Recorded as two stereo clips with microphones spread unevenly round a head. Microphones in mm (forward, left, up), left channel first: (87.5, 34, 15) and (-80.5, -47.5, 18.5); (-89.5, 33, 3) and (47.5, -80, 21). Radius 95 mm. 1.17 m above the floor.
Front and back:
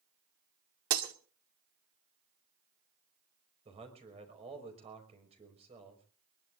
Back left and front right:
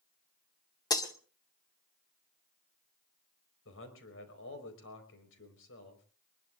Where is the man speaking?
145° left, 5 m.